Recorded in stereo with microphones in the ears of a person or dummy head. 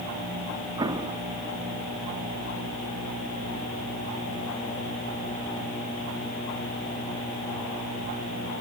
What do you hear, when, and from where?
0.8 s an explosion: 25° right (ahead or behind), 1.8 m